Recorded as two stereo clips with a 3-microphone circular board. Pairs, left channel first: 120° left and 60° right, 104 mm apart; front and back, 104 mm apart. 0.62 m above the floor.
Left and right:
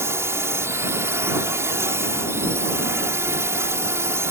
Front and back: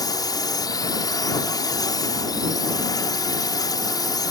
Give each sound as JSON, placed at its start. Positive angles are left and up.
{"t": 0.0, "sound": "a drone", "azimuth_deg": -15}